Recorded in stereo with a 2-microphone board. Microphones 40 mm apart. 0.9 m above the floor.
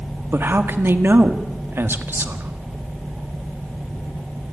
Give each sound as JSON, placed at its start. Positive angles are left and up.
{"t": 0.3, "sound": "a man speaking", "side_deg": -65, "distance_m": 1.7}